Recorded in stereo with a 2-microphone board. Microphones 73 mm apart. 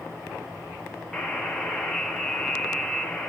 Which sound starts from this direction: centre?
A buzzer, at 1.1 s.